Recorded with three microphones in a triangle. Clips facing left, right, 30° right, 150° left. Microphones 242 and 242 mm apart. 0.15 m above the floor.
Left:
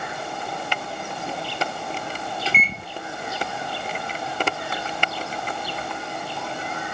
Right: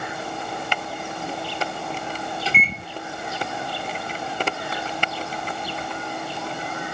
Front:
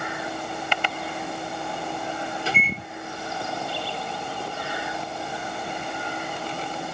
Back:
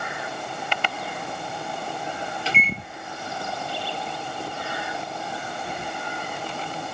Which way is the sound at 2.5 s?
Straight ahead.